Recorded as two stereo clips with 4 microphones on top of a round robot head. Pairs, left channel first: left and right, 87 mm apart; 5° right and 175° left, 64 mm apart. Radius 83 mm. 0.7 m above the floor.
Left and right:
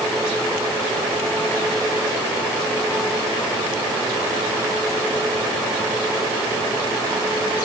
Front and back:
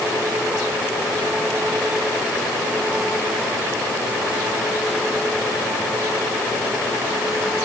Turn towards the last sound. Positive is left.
No sound to turn to.